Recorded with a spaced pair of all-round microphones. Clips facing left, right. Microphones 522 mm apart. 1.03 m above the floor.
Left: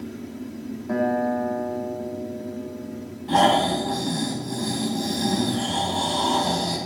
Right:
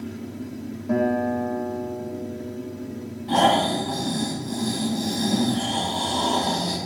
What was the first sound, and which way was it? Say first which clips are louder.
A guitar: right 1 dB; 50° right (ahead or behind).